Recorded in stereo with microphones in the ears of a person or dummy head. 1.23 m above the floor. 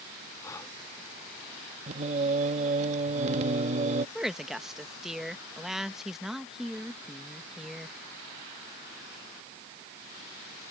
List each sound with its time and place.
0.4 s breathing: 20° left (ahead or behind)
1.9 s singing: 40° right (ahead or behind)
4.2 s a woman speaking: centre (ahead or behind)